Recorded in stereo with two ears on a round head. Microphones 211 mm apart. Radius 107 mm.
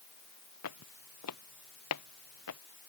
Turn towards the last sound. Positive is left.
turn(degrees=85)